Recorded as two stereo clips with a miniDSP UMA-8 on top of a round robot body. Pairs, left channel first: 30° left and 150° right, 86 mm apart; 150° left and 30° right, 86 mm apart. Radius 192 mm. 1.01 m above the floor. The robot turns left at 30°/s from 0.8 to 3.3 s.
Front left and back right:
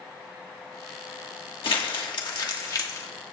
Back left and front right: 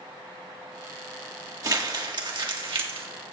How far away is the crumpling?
About 1.4 m.